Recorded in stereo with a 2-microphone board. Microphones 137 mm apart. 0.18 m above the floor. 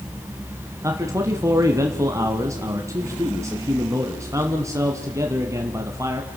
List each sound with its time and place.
0.8 s a man speaking: 25° right (ahead or behind), 1.6 m